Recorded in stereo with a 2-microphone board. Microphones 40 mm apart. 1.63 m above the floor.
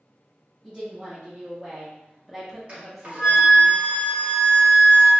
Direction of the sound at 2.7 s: 30° right (ahead or behind).